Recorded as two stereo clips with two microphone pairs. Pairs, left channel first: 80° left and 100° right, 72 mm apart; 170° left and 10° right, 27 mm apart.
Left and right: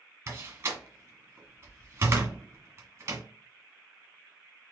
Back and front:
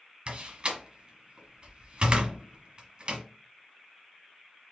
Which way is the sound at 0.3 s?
50° right.